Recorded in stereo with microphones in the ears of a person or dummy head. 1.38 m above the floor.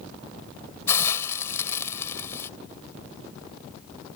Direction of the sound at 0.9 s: 20° left (ahead or behind).